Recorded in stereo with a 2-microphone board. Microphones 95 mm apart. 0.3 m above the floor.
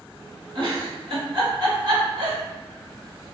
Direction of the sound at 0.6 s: 60° right (ahead or behind).